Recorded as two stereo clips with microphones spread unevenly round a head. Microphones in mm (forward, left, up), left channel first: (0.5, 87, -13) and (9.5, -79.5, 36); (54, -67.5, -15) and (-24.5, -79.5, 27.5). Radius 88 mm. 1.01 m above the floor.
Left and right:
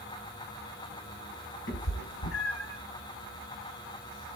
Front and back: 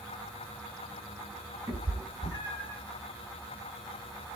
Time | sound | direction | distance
1.7 | a cat meowing | 130° left | 1.3 m